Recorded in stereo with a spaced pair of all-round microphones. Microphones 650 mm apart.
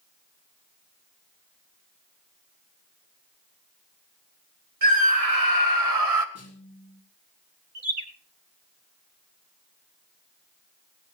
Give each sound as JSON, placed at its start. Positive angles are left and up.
{"t": 4.8, "sound": "a scream", "side_deg": -60, "distance_m": 3.0}
{"t": 6.3, "sound": "a snare drum", "side_deg": 20, "distance_m": 4.0}
{"t": 7.8, "sound": "a bird", "side_deg": -80, "distance_m": 2.5}